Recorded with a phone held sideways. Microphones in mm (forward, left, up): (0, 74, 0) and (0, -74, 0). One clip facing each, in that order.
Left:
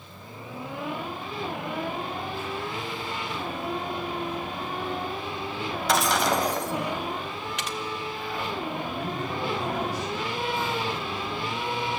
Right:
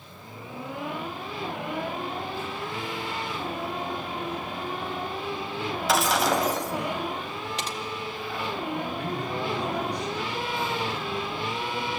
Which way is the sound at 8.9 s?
5° left (ahead or behind).